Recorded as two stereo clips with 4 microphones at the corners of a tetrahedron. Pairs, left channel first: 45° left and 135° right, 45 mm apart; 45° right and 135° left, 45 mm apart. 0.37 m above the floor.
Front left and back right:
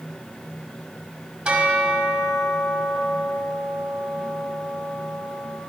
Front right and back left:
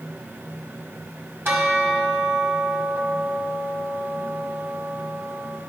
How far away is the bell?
About 1.6 m.